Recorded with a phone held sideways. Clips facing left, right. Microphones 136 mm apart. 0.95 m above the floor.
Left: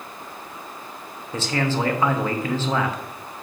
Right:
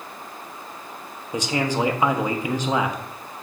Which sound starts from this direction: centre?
A man speaking, at 1.3 s.